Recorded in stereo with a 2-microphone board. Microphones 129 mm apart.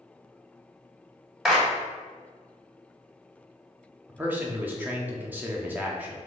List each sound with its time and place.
1.4 s a clap: 5° right (ahead or behind), 1.1 m
4.1 s a man speaking: 15° right (ahead or behind), 0.6 m